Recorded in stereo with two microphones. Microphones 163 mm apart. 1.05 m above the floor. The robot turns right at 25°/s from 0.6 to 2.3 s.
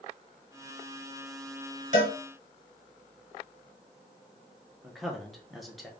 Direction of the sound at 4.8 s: Centre (ahead or behind).